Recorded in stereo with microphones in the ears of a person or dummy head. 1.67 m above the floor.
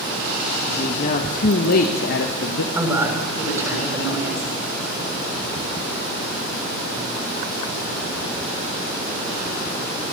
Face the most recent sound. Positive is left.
turn(degrees=-15)  # may be behind; listen again after turning